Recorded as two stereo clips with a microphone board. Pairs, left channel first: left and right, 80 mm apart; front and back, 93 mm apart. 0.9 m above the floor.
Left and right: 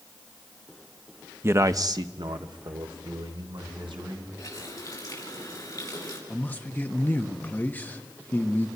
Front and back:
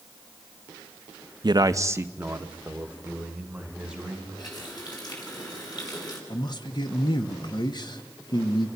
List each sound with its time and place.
1.4 s a man speaking: 145° right, 0.7 m; by 4.3 s 100° right, 4 m
4.4 s a running tap: 40° left, 6 m
6.3 s a man speaking: 25° left, 1.5 m